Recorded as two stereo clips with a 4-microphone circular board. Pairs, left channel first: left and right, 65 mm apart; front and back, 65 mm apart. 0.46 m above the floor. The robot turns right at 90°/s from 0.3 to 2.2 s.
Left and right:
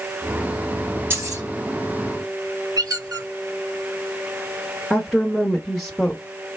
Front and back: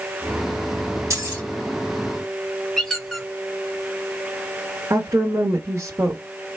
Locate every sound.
1.1 s keys jangling: 145° right, 2.5 m; by 1.4 s 115° right, 2.5 m
2.8 s a squeak: 85° right, 1.6 m
4.9 s a woman speaking: 175° left, 1.1 m